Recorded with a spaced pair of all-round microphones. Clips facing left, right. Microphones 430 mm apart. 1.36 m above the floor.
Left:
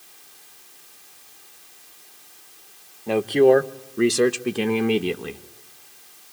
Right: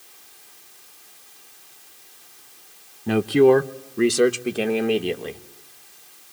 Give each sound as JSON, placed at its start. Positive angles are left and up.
{"t": 3.1, "sound": "a man speaking", "side_deg": -30, "distance_m": 0.9}